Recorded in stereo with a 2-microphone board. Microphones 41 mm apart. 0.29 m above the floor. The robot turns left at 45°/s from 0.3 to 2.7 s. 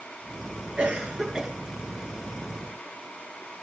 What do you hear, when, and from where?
0.8 s a cough: 135° right, 6.5 m; by 1.5 s 170° right, 6.5 m